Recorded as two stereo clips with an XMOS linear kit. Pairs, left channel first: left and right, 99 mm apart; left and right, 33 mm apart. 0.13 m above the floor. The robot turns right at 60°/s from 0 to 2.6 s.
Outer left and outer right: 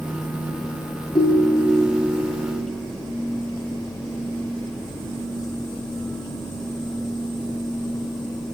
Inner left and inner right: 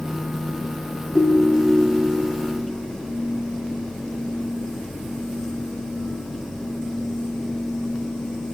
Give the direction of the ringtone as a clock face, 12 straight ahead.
9 o'clock.